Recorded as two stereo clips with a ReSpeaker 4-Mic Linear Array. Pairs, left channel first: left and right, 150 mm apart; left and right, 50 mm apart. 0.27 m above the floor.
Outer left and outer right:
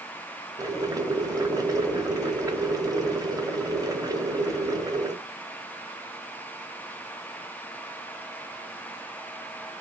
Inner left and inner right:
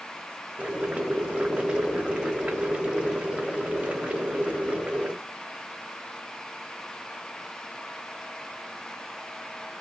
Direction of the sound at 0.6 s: 25° right (ahead or behind).